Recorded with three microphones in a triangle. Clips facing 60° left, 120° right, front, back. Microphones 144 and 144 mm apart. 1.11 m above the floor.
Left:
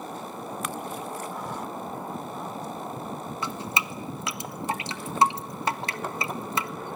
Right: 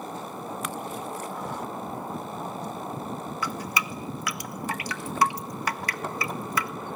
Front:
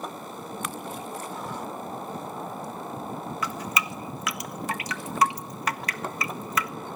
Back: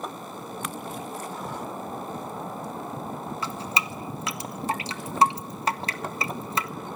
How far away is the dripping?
About 1.1 m.